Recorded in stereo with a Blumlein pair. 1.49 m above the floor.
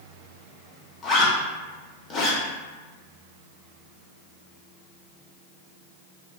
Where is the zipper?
25° left, 0.9 m.